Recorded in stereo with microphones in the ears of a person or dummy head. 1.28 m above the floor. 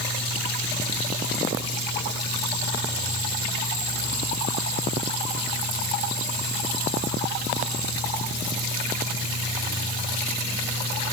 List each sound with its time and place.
Only background noise.